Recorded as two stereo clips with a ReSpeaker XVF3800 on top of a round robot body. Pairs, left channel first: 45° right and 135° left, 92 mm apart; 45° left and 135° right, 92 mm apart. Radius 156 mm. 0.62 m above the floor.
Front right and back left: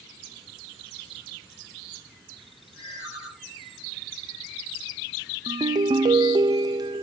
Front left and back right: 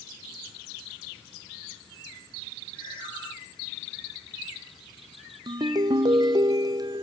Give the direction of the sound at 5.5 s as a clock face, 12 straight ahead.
6 o'clock.